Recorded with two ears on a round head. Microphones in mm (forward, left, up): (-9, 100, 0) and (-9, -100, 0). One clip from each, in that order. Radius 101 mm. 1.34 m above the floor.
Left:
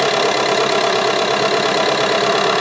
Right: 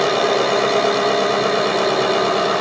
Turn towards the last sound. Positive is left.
turn(degrees=40)  # may be behind; listen again after turning